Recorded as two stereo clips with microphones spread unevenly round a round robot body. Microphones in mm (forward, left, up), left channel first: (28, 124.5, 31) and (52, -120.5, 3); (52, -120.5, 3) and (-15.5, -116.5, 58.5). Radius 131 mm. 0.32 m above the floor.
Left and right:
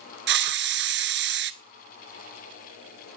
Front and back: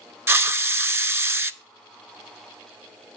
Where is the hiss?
140° right, 0.7 m.